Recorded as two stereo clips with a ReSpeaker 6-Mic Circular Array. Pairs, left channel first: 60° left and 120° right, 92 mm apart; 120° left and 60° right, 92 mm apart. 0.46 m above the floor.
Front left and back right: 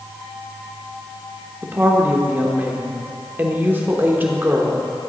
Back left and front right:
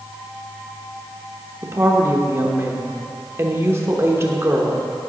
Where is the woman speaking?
75° right, 0.9 m.